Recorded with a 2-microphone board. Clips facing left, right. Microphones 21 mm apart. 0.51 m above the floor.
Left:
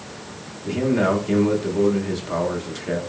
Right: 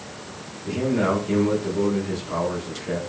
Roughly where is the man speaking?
Left.